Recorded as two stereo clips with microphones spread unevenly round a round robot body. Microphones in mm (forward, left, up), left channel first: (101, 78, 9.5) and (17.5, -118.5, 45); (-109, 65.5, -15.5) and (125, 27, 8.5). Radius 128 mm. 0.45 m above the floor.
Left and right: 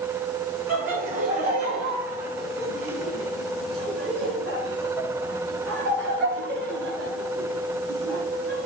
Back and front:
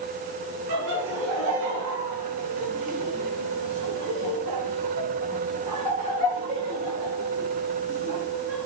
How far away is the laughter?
About 4.5 m.